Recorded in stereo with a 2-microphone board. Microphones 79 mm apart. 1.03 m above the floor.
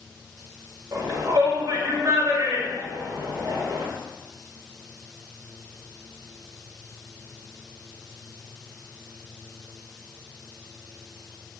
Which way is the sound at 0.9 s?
50° right (ahead or behind).